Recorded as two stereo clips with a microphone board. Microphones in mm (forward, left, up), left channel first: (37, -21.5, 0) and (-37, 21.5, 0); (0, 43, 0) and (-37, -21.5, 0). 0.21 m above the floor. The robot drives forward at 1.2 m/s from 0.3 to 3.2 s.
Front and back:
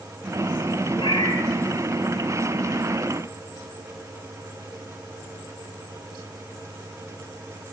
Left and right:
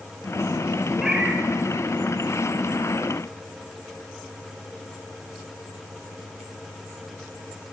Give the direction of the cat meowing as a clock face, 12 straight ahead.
1 o'clock.